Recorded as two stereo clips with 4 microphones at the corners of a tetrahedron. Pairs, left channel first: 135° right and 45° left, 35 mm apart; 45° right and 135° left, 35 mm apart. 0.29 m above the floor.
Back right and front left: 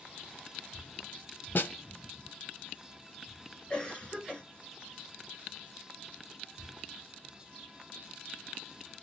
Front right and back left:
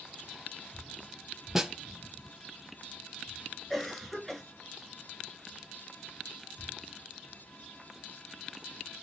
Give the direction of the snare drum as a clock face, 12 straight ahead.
5 o'clock.